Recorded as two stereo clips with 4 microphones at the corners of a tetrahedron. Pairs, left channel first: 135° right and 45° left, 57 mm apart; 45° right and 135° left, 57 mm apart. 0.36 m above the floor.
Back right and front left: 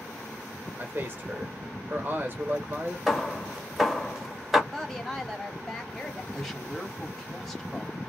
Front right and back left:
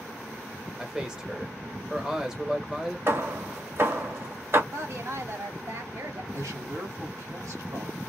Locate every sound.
0.8 s a man speaking: 65° left, 1.3 m
3.1 s hammering: 130° left, 1.6 m
4.7 s a woman speaking: 140° left, 2 m
6.3 s a man speaking: 140° left, 2.5 m